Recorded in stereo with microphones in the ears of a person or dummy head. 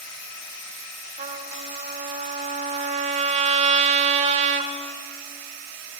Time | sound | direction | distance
1.2 | a trumpet | 40° right (ahead or behind) | 1.5 m